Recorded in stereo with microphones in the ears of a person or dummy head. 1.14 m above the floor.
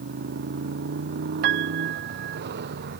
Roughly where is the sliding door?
No sliding door in this recording.